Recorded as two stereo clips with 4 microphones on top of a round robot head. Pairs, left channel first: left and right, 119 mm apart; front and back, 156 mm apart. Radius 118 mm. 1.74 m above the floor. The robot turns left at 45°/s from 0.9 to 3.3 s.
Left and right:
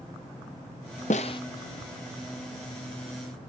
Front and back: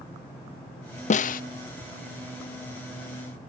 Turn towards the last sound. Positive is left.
turn(degrees=-65)